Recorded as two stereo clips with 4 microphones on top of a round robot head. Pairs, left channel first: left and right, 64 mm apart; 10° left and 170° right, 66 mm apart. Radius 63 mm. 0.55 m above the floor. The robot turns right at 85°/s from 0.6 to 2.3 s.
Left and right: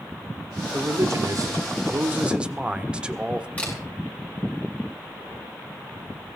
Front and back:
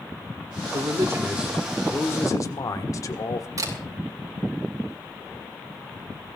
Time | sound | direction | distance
0.7 | a man speaking | 155° right | 1.7 m
3.6 | a camera shutter | 160° left | 5.5 m